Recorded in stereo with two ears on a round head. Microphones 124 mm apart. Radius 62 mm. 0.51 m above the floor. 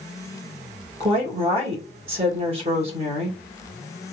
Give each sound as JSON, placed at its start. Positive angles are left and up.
{"t": 1.0, "sound": "a woman speaking", "side_deg": -45, "distance_m": 1.8}